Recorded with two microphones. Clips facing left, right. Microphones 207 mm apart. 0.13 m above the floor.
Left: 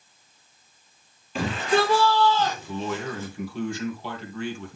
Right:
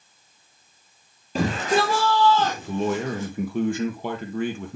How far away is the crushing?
I don't hear crushing.